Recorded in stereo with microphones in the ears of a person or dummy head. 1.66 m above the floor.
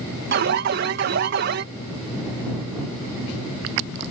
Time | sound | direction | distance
0.3 | an alarm | 60° right (ahead or behind) | ?